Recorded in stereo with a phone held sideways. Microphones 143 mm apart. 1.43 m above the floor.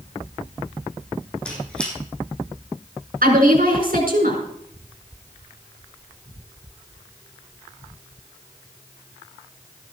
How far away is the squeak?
About 6 m.